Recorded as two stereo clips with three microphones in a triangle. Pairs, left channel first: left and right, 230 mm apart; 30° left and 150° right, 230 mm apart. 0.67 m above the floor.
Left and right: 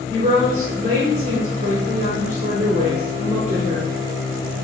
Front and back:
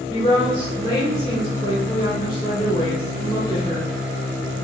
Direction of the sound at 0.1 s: 90° right.